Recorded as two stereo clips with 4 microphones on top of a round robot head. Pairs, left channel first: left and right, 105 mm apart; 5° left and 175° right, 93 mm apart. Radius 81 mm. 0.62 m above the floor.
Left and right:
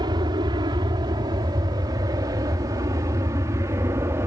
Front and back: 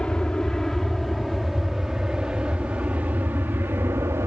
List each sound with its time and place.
0.0 s an aircraft: 75° right; by 4.3 s 135° right